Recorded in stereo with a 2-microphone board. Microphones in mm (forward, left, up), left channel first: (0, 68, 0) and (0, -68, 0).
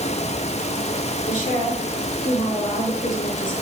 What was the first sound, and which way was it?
A woman speaking, 40° left (ahead or behind).